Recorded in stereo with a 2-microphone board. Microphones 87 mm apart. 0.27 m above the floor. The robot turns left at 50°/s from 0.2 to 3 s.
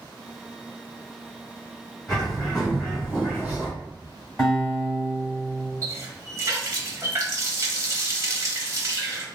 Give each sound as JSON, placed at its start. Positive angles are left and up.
{"t": 2.1, "sound": "a bird", "side_deg": 10, "distance_m": 1.7}
{"t": 4.4, "sound": "a guitar", "side_deg": 5, "distance_m": 1.6}
{"t": 5.8, "sound": "a running tap", "side_deg": -35, "distance_m": 0.7}